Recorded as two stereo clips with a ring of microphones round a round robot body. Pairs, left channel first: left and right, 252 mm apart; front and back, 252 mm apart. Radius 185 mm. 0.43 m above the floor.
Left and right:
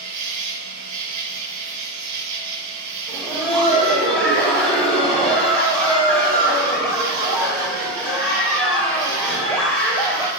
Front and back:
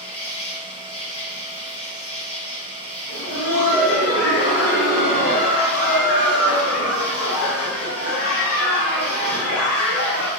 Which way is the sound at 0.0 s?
85° right.